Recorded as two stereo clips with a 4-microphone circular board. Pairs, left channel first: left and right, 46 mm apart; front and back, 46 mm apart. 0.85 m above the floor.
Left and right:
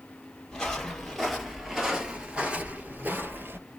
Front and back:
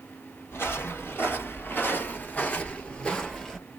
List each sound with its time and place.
0.5 s footsteps: 15° left, 1.5 m; by 3.6 s 75° right, 1.2 m